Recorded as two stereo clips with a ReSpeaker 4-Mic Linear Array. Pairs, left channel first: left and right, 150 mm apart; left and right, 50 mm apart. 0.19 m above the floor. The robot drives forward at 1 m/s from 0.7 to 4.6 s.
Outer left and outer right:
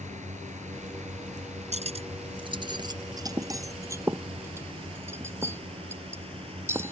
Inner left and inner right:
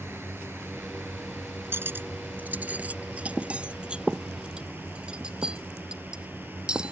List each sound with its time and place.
0.0 s a drone: 50° right (ahead or behind); by 6.9 s 40° right (ahead or behind)
1.7 s cutlery clinking: 50° right (ahead or behind); by 6.9 s 15° right (ahead or behind)